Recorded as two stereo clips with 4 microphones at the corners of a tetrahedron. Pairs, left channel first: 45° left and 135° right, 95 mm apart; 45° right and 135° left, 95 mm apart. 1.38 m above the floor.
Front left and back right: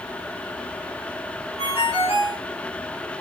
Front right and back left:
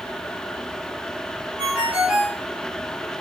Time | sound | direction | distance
1.6 | a ringtone | 55° left | 5 m